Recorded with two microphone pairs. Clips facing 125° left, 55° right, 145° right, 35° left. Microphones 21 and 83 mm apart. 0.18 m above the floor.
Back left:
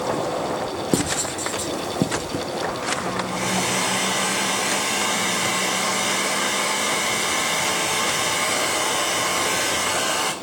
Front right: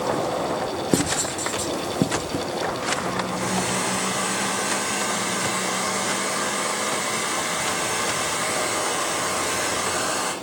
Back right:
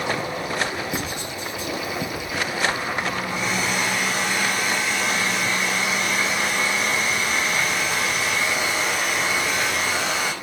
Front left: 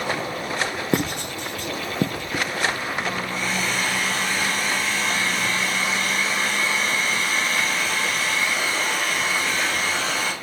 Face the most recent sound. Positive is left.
turn(degrees=145)